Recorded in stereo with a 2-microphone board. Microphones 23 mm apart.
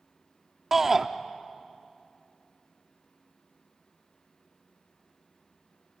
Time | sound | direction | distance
0.7 | a shout | 15° right (ahead or behind) | 0.7 m